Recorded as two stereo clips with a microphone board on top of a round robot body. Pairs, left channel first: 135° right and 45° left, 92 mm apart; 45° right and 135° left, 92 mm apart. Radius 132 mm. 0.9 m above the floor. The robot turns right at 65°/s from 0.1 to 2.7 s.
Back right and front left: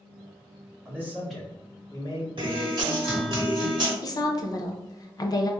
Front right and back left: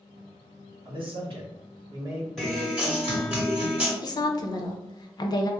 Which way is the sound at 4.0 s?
90° right.